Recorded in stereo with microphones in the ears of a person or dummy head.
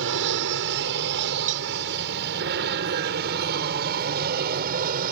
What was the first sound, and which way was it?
An aircraft, 60° right (ahead or behind).